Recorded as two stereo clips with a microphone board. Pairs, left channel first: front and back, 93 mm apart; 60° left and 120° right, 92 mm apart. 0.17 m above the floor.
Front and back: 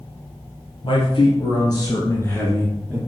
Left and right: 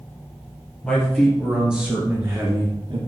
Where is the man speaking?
20° right, 3.5 m; by 3.0 s 90° right, 2.5 m.